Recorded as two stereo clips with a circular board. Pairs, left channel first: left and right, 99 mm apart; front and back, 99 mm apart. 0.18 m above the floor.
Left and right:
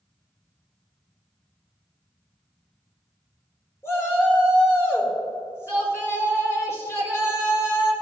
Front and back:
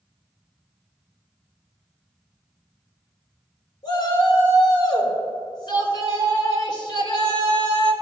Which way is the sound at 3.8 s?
35° left.